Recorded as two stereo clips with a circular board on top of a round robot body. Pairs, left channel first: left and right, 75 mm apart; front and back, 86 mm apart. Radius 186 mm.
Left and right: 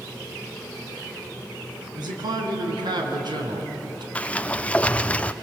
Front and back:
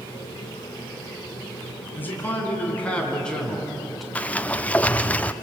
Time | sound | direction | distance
1.9 | a man speaking | 70° right | 4.5 m
4.2 | a sliding door | 45° left | 0.8 m